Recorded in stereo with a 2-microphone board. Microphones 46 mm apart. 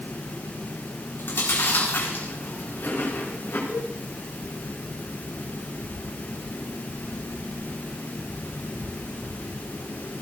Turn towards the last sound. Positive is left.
turn(degrees=-70)  # may be behind; listen again after turning